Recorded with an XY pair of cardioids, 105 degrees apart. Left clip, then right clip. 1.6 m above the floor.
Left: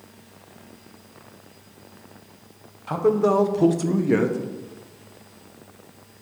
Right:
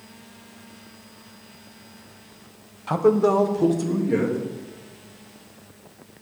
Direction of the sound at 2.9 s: 25° right.